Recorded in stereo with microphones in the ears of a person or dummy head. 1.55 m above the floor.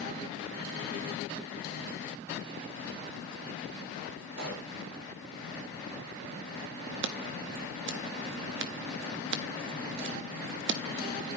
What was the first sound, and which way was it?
A pop, 60° right (ahead or behind).